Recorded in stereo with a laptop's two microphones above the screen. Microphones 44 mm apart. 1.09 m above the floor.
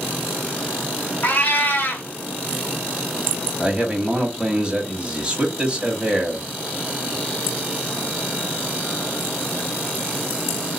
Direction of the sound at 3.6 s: 20° right (ahead or behind).